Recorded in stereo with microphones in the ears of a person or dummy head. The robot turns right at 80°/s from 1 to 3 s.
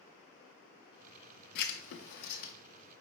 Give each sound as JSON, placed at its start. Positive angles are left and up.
{"t": 1.6, "sound": "writing", "side_deg": 50, "distance_m": 0.6}